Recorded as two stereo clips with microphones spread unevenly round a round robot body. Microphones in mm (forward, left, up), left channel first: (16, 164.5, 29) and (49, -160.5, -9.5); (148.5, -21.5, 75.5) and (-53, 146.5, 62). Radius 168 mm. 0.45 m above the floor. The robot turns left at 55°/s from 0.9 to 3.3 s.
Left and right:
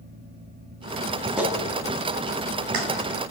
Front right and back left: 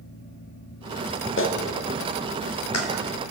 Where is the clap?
Straight ahead, 3.5 m; by 2.9 s 80° right, 3.5 m.